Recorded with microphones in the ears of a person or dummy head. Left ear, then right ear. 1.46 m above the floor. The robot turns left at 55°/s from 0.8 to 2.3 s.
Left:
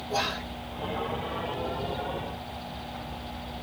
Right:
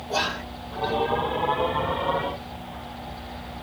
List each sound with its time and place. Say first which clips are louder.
0.1 s whispering: right 3 dB; 75° right (ahead or behind), 1.7 m